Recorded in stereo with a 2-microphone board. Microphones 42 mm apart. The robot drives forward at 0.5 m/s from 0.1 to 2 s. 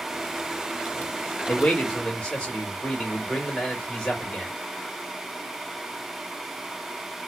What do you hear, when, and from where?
1.5 s a man speaking: 30° left (ahead or behind), 1.0 m; by 4.5 s 25° left (ahead or behind), 1.2 m